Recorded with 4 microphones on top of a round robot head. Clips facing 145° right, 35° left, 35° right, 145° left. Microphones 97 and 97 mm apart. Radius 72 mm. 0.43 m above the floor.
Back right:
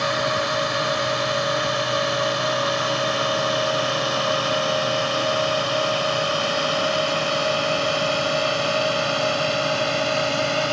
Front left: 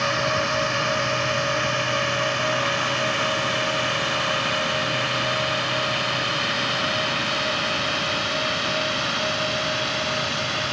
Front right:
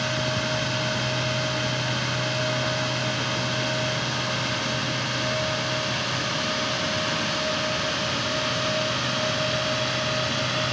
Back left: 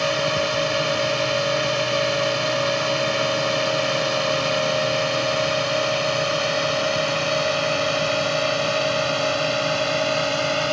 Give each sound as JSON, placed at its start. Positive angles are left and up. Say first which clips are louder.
{"t": 0.0, "sound": "a drone", "louder": "back right 1 dB, back left 6 dB", "azimuth_deg": 135}